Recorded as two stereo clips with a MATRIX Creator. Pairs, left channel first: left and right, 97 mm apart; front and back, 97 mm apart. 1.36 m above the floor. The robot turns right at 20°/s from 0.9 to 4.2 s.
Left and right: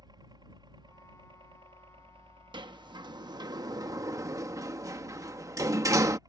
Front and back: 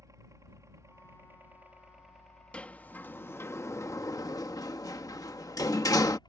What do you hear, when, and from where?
0.0 s a helicopter: 125° right; by 6.3 s 40° right
2.5 s a sliding door: 75° right; by 6.2 s 40° right